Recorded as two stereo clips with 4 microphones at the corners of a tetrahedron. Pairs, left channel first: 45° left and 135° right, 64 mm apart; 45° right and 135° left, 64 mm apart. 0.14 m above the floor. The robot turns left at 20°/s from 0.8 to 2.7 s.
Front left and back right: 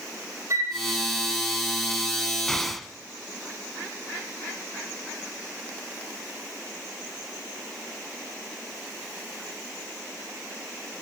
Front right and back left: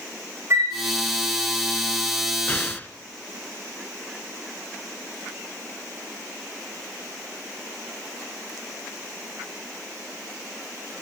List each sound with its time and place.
0.5 s a flute: 175° right, 3.5 m
2.5 s an explosion: 35° right, 0.8 m; by 2.9 s 40° right, 0.8 m